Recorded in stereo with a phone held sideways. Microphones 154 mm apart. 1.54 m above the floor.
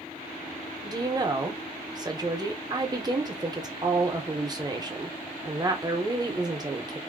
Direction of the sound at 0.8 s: 25° right (ahead or behind).